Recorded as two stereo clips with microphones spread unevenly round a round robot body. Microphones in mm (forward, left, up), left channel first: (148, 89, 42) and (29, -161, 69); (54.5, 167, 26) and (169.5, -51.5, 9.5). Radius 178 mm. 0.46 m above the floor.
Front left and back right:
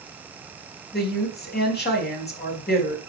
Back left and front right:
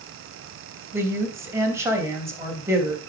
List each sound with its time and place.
0.9 s a woman speaking: 15° left, 3 m